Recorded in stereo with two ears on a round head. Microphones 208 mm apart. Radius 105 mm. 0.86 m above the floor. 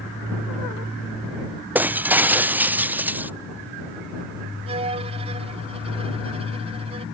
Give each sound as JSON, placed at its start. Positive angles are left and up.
{"t": 1.8, "sound": "breaking glass", "side_deg": -10}
{"t": 4.7, "sound": "a violin", "side_deg": -25}